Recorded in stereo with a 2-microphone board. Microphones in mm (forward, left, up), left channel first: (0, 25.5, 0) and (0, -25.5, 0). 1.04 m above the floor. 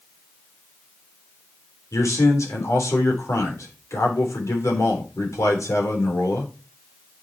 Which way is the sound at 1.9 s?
80° left.